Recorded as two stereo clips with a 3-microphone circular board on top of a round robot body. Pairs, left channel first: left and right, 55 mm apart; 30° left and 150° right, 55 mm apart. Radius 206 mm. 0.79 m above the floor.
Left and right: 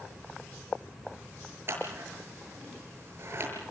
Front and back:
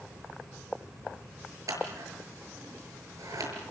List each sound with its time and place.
1.7 s scissors: 135° right, 6.5 m